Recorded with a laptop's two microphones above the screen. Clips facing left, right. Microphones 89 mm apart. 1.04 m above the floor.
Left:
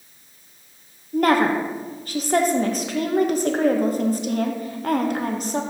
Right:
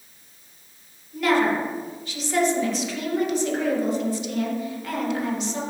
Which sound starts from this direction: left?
A woman speaking, at 1.1 s.